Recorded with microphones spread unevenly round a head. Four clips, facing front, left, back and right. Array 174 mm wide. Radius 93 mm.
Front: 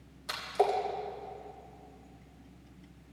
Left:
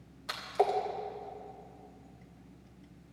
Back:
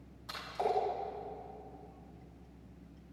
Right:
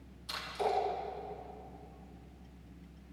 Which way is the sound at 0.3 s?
50° left.